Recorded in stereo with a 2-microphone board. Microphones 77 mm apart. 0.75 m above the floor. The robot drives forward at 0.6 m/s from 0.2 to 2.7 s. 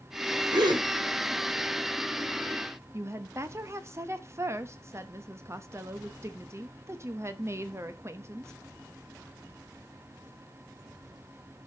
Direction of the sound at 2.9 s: 35° right (ahead or behind).